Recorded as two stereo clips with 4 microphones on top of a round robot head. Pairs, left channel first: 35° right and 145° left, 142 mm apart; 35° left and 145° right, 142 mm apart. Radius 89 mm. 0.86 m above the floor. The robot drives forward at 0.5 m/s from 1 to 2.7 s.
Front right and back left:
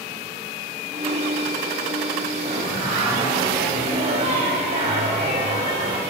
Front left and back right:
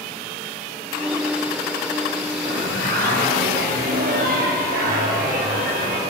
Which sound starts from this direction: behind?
Singing, at 2.5 s.